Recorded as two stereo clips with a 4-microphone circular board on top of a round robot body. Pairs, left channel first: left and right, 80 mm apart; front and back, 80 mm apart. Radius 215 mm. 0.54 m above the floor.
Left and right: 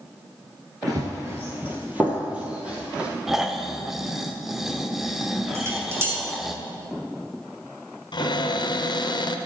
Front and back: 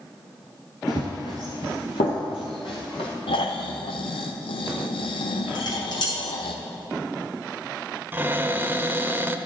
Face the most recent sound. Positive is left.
turn(degrees=115)